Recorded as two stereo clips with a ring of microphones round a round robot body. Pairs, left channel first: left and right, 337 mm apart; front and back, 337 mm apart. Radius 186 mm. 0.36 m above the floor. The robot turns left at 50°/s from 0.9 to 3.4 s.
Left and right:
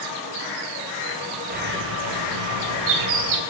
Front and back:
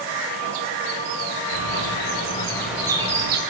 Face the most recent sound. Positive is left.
turn(degrees=-125)